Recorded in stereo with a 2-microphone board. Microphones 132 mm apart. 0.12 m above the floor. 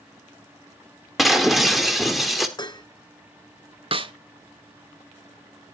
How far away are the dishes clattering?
About 1.1 m.